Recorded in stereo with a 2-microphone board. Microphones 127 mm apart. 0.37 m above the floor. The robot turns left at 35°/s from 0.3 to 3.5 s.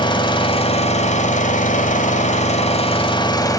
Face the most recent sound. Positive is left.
turn(degrees=30)